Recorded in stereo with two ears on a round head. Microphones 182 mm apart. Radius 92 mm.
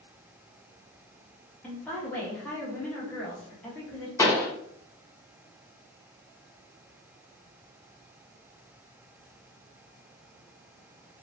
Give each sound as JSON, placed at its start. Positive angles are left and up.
{"t": 1.6, "sound": "a woman speaking", "side_deg": 10, "distance_m": 0.9}
{"t": 4.2, "sound": "a pop", "side_deg": 15, "distance_m": 0.6}